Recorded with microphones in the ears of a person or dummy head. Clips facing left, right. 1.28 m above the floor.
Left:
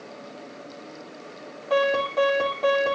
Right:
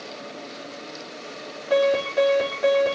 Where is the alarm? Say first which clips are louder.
Right 3 dB; 10° right (ahead or behind), 5 m.